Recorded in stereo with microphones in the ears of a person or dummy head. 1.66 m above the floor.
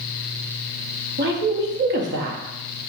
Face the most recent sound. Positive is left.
turn(degrees=-55)  # may be behind; listen again after turning